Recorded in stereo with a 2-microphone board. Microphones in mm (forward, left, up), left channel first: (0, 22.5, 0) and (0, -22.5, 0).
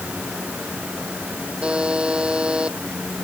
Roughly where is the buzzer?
Right.